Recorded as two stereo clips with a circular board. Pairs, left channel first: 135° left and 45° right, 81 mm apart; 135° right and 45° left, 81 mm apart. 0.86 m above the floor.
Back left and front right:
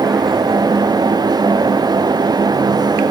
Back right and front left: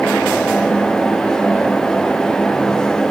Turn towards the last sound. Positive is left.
No sound to turn to.